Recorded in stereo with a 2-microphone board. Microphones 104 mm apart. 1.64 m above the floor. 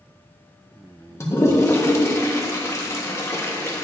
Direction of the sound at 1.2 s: 25° left (ahead or behind).